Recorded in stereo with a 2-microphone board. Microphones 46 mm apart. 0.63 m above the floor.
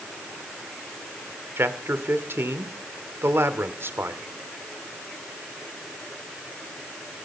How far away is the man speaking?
About 1.6 m.